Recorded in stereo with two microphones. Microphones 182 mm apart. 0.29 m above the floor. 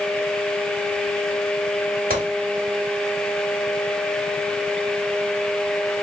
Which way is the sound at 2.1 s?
50° right (ahead or behind).